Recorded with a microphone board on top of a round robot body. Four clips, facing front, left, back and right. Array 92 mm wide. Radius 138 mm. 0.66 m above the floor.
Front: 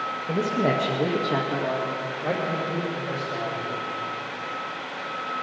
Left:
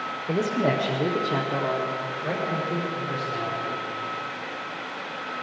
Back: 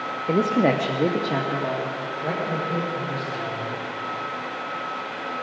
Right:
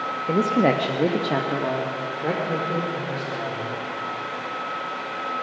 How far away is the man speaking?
About 1.0 m.